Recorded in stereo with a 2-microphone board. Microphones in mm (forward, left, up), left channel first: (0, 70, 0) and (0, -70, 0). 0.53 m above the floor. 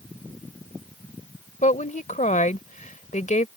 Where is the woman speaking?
65° left (ahead or behind).